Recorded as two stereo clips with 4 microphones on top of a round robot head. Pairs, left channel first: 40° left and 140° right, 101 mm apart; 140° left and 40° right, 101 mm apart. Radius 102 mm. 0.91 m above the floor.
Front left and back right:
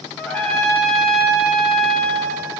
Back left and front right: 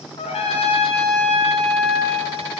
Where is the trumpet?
120° left, 1.5 m.